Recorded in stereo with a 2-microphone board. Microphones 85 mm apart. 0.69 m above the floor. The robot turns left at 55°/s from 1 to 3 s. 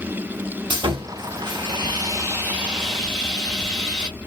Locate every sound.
0.7 s sawing: 75° right, 1.2 m; by 4.1 s 175° left, 1.2 m